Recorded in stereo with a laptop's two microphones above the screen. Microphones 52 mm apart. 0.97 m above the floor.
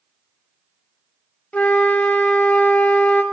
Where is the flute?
30° left (ahead or behind), 0.5 m.